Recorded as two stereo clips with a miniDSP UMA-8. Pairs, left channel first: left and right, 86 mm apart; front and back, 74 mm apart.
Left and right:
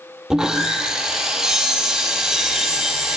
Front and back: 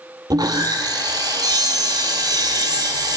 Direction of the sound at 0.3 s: 170° right.